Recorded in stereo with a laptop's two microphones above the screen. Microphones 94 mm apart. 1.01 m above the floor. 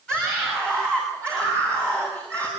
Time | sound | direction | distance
0.1 | a scream | 10° left (ahead or behind) | 6.5 m